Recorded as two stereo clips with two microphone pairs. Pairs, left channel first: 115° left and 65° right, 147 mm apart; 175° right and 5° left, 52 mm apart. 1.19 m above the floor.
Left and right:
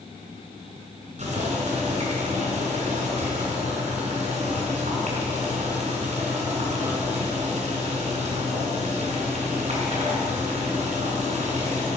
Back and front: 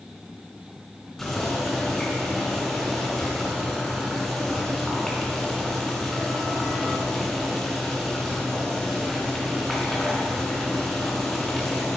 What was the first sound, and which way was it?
Boiling, 95° right.